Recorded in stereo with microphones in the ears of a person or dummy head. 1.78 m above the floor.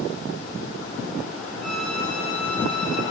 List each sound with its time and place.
1.6 s a violin: 5° left (ahead or behind), 5.5 m